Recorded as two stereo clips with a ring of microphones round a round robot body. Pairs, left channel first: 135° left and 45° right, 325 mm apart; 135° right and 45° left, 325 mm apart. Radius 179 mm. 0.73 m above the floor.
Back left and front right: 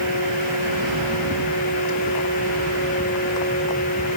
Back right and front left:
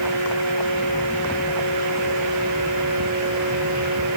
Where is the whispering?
I don't hear whispering.